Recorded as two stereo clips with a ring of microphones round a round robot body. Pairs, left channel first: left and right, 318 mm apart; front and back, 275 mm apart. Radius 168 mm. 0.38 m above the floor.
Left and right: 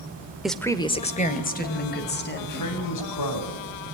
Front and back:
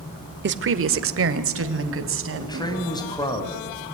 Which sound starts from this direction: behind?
A woman speaking, at 0.4 s.